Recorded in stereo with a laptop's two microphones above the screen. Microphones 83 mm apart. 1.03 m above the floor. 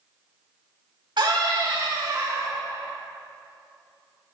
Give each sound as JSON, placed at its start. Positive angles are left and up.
{"t": 1.2, "sound": "a scream", "side_deg": -75, "distance_m": 2.0}